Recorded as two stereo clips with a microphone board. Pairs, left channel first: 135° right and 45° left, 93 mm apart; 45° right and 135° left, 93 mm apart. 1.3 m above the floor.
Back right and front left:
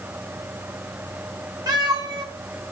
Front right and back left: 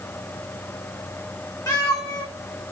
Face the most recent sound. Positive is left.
turn(degrees=5)